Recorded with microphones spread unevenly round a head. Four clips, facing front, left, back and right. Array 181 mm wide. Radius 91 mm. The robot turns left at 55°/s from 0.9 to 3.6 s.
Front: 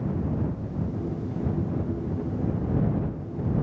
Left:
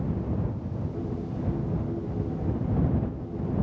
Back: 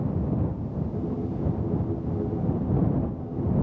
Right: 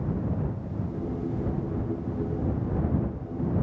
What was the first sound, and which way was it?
Only background noise.